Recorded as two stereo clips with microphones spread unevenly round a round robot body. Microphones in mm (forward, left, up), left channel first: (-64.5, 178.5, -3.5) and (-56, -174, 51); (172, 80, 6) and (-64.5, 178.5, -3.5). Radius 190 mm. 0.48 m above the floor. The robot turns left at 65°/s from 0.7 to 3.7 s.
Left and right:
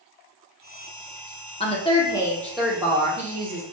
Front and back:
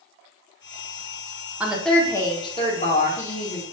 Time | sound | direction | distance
1.6 | a woman speaking | 85° left | 0.8 m